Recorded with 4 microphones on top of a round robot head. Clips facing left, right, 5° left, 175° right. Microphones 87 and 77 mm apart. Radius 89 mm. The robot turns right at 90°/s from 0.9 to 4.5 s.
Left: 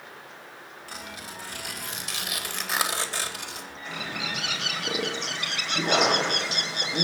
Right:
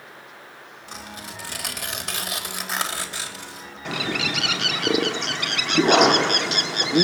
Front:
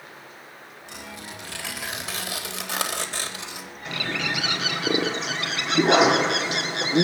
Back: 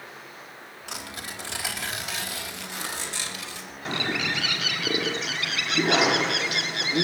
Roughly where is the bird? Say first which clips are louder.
Right 8 dB, back 1 dB; behind right.